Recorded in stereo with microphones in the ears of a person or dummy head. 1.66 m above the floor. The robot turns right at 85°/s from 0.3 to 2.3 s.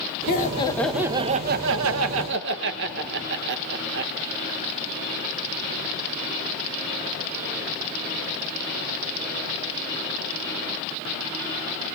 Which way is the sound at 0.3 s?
130° left.